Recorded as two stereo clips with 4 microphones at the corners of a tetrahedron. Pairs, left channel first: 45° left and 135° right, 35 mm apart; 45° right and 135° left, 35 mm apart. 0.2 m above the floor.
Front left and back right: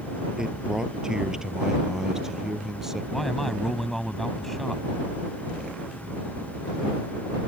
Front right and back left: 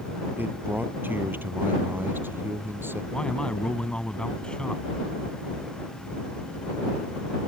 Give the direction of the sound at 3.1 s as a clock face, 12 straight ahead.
1 o'clock.